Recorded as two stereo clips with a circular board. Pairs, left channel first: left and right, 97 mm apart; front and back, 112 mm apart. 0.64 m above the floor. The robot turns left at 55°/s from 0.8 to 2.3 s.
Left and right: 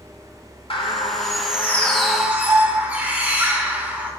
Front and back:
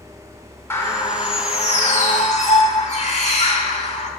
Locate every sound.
0.7 s a bird: 70° left, 2.0 m; by 4.1 s 15° right, 2.0 m